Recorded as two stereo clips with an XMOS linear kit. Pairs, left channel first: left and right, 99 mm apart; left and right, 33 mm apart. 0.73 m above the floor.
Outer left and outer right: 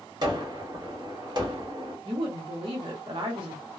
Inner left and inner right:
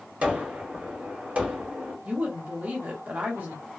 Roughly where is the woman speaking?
Right.